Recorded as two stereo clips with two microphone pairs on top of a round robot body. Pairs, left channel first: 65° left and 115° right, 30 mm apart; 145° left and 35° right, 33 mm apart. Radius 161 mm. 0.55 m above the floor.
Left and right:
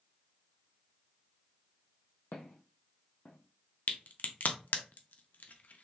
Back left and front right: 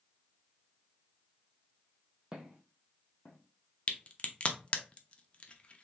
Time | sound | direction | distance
2.3 | footsteps | 40° left | 1.2 m
3.9 | a crack | 90° left | 0.8 m